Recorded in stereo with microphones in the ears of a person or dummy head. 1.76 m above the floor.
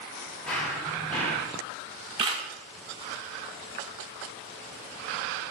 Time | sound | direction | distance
0.5 | running footsteps | 5° left (ahead or behind) | 3 m
2.2 | a camera shutter | 30° right (ahead or behind) | 0.8 m